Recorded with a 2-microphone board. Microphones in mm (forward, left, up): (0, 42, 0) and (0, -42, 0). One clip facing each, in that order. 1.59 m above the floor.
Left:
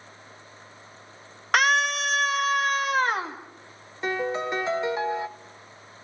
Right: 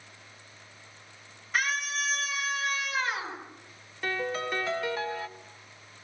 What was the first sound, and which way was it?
A scream, 75° left (ahead or behind).